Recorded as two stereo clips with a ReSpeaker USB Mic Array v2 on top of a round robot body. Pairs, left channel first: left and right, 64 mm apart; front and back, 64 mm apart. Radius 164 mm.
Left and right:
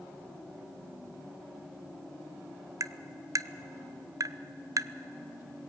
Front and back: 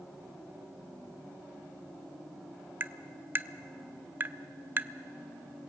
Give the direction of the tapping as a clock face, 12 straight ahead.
4 o'clock.